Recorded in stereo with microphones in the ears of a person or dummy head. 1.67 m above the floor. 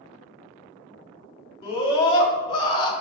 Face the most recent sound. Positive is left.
turn(degrees=30)  # may be behind; listen again after turning